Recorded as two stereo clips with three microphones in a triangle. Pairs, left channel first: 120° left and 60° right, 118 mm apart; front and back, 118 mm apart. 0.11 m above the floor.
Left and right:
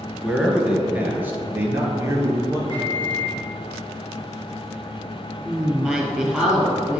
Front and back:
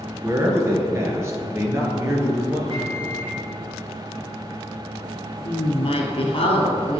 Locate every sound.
0.2 s a man speaking: 145° right, 1.7 m; by 2.6 s 115° right, 2.5 m
2.7 s a microwave: 160° left, 2.5 m
5.5 s a woman speaking: 20° left, 2.5 m